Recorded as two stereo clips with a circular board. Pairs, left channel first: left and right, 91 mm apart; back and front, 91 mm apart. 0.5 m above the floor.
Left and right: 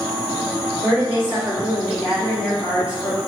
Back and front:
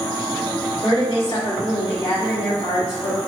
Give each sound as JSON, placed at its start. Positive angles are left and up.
{"t": 0.8, "sound": "a woman speaking", "azimuth_deg": -165, "distance_m": 1.9}